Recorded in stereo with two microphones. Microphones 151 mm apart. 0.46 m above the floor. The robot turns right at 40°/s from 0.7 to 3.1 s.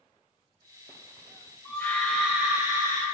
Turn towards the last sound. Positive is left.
turn(degrees=-145)